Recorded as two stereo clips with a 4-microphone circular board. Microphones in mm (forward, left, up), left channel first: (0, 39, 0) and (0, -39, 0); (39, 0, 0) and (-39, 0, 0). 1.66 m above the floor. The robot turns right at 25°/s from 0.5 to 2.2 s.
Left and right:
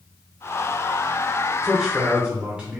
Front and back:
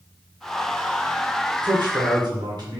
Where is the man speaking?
Straight behind, 1.2 m; by 2.8 s 165° right, 1.2 m.